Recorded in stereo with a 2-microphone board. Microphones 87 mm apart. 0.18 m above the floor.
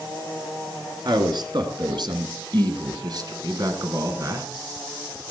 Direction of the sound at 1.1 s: 55° right (ahead or behind).